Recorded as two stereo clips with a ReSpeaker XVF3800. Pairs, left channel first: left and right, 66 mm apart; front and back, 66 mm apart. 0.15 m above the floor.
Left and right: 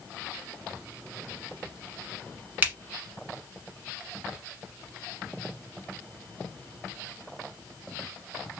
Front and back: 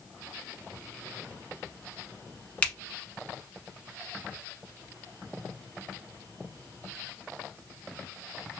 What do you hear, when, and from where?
2.6 s a finger snap: 55° right, 1.1 m